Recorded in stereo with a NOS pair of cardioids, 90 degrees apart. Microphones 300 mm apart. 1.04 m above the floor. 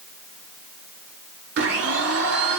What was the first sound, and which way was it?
A blender, 55° right.